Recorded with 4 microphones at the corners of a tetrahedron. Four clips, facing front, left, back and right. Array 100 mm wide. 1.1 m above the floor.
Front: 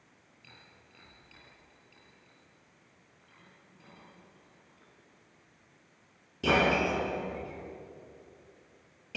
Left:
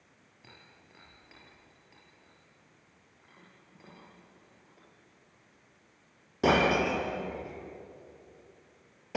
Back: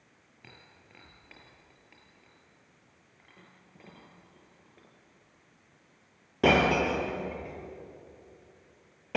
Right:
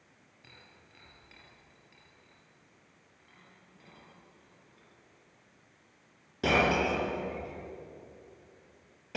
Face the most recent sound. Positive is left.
turn(degrees=160)